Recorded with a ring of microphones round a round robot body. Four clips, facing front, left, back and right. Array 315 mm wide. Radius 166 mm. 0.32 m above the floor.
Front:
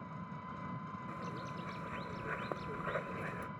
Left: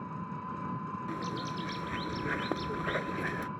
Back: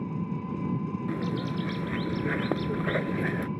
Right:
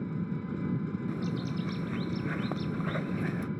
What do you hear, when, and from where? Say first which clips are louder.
0.0 s an engine running: right 4 dB, back 13 dB; 145° right
1.1 s a bird: right 2 dB, back 13 dB; 175° left